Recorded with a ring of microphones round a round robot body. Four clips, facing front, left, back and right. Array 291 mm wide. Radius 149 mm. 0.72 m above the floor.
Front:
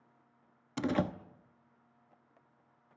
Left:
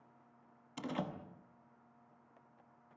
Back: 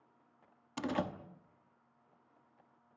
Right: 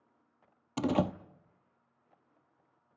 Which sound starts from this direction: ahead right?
A door slam, at 0.8 s.